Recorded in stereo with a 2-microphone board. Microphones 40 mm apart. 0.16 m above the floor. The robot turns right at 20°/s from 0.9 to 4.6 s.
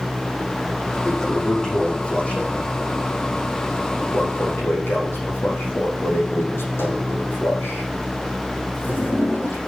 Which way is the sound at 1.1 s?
10° left (ahead or behind).